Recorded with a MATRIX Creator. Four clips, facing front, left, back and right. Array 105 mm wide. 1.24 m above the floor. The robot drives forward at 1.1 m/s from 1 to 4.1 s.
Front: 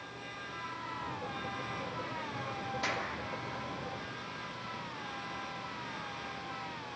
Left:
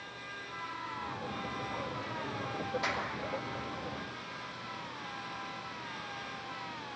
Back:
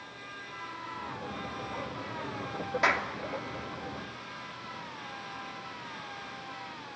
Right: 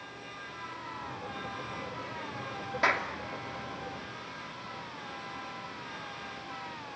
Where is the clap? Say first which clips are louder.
Right 6 dB, back 10 dB; 140° right, 2.5 m; by 3.1 s 145° right, 2.5 m.